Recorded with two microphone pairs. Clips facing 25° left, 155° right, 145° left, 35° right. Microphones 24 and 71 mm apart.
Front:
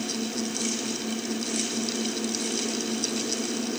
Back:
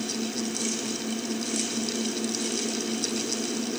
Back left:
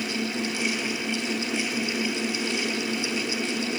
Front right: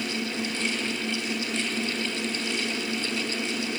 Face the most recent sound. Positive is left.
No sound to turn to.